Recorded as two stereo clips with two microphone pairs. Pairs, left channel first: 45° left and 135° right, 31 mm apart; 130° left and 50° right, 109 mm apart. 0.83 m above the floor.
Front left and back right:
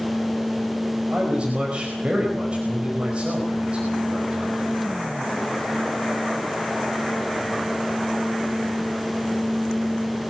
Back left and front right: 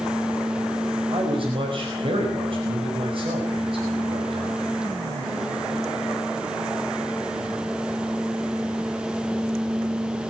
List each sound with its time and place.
1.1 s a man speaking: 85° right, 5 m